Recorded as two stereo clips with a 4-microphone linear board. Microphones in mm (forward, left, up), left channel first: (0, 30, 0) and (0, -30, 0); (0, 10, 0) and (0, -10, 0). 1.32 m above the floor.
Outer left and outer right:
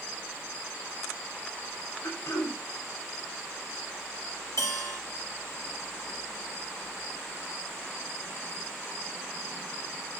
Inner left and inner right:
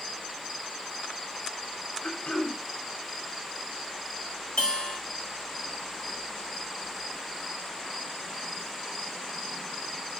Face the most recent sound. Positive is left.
turn(degrees=75)  # may be behind; listen again after turning